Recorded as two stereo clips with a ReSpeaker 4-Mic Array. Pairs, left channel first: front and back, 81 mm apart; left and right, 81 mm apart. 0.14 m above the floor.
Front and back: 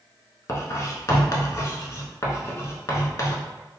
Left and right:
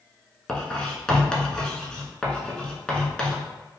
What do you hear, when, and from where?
0.5 s writing: 15° left, 0.7 m